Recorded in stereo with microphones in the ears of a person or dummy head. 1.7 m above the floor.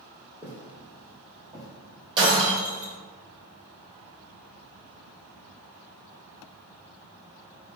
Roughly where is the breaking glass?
Right.